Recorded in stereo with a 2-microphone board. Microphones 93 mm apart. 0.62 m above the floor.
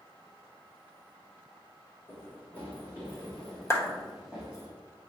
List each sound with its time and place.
2.1 s running footsteps: 20° left (ahead or behind), 3 m; by 4.7 s 10° right (ahead or behind), 1.9 m
3.7 s a clap: 30° left (ahead or behind), 1.1 m